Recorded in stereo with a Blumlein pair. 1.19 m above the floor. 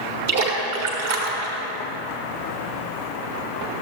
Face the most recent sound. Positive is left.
turn(degrees=-55)